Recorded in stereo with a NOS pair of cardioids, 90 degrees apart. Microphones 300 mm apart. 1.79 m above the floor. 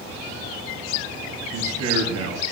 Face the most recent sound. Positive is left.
turn(degrees=-50)